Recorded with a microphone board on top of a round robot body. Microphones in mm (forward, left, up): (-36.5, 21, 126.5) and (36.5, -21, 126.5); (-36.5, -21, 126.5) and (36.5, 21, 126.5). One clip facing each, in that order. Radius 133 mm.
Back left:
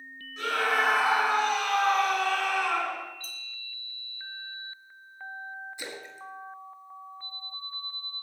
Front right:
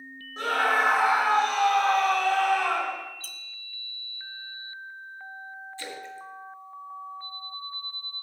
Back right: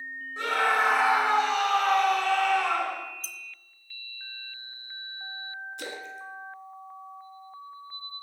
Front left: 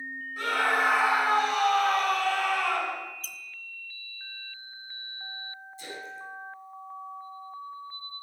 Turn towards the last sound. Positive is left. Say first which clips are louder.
# front right 2 dB, back right 2 dB
turn(degrees=-135)